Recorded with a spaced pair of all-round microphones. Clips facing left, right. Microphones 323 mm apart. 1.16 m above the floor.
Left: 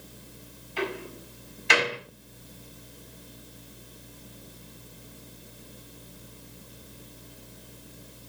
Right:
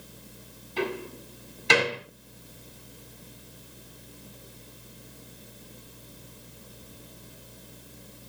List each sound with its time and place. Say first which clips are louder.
0.8 s a door slam: right 2 dB; 50° right (ahead or behind), 6 m